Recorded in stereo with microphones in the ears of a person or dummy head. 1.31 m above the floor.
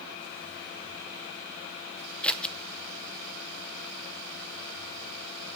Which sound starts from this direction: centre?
Scissors, at 2.2 s.